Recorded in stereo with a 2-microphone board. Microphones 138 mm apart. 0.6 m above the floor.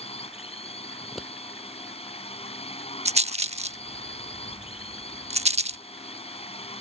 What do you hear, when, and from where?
0.0 s a drone: 45° left (ahead or behind)
1.0 s scissors: centre (ahead or behind)
3.0 s a rattle: 50° right (ahead or behind)